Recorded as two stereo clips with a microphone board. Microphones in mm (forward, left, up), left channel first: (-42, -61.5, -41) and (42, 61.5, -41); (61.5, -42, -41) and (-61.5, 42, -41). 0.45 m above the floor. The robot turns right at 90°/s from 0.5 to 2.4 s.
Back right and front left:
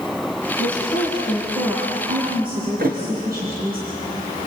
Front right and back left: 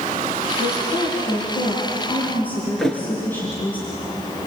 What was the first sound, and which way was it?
A woman speaking, 120° right.